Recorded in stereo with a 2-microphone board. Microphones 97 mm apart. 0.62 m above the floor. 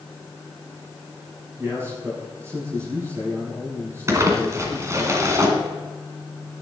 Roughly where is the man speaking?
Right.